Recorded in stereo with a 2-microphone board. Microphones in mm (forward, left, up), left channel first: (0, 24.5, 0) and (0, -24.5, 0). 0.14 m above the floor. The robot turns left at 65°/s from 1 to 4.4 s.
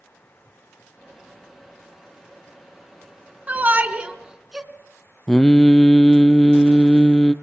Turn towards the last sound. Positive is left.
turn(degrees=10)  # may be behind; listen again after turning